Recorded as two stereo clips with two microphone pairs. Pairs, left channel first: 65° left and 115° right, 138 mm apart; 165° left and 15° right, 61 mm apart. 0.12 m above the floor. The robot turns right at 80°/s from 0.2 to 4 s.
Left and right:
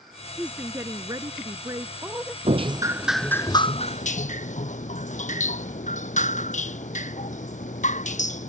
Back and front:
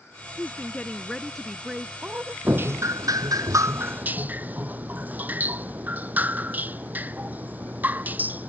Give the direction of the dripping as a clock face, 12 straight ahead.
3 o'clock.